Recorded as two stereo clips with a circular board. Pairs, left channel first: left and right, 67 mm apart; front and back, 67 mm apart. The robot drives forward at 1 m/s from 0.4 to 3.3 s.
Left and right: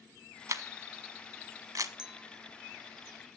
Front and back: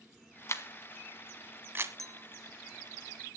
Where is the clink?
165° right, 0.5 m; by 2.2 s 170° right, 0.7 m.